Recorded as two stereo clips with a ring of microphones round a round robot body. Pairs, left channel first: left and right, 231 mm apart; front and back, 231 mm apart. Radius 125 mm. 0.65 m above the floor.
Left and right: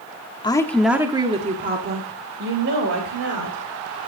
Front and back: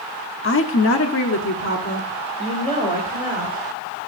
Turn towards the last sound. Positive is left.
turn(degrees=-70)